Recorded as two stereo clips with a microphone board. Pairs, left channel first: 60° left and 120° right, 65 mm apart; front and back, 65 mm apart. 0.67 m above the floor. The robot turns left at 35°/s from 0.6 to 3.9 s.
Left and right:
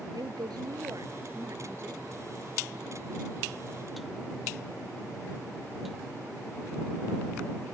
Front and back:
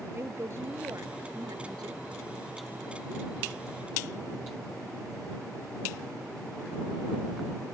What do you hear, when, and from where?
0.1 s a woman speaking: 130° right; by 2.0 s straight behind